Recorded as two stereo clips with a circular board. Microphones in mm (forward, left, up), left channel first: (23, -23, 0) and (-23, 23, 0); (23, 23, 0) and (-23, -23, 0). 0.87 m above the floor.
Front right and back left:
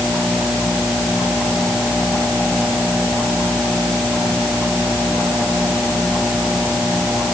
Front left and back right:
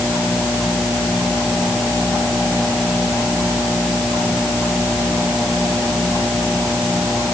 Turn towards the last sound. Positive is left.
No sound to turn to.